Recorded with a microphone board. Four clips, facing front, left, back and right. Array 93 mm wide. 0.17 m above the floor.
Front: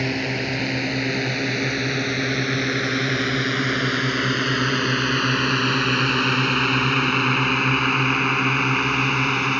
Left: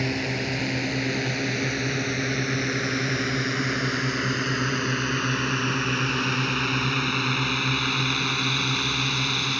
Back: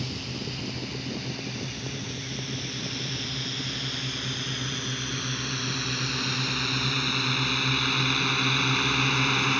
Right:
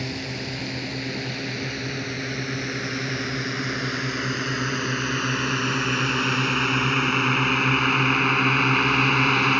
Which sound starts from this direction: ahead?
A drone, at 0.0 s.